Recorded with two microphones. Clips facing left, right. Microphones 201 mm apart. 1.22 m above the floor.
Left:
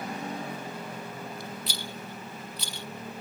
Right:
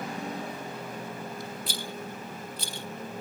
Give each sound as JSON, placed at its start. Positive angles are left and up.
{"t": 1.7, "sound": "a rattle", "side_deg": -50}